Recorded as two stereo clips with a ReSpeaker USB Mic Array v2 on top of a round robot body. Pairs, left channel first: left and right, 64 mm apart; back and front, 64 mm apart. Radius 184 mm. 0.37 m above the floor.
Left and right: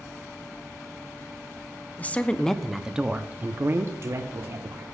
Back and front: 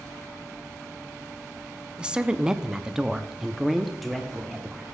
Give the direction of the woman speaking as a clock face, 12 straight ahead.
10 o'clock.